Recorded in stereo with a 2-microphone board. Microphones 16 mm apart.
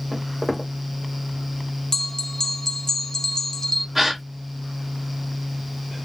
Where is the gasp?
20° right (ahead or behind), 1.0 m.